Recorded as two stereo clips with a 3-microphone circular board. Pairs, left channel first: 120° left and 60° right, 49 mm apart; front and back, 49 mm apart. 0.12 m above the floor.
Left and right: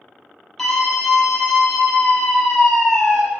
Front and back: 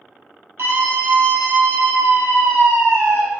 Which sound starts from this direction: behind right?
A scream, at 0.6 s.